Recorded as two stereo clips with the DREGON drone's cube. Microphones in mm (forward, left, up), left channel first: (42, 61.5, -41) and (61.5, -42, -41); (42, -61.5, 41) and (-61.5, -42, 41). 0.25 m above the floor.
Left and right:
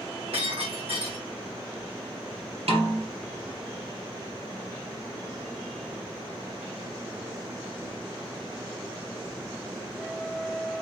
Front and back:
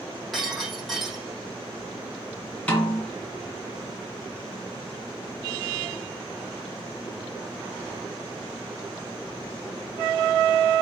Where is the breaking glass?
100° right, 5 m.